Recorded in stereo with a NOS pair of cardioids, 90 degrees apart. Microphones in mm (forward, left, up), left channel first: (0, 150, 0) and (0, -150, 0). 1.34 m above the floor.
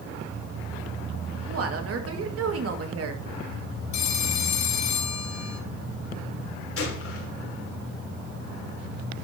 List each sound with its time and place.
1.5 s a woman speaking: 50° right, 2.5 m
3.9 s a phone ringing: 65° left, 1.9 m
6.8 s a gunshot: 45° left, 3 m